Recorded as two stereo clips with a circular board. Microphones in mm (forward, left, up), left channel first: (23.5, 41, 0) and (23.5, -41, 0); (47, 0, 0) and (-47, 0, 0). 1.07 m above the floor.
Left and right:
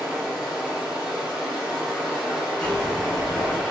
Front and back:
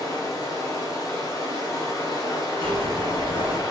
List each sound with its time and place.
0.0 s running water: 10° right, 0.8 m
2.6 s a zipper: 170° left, 0.6 m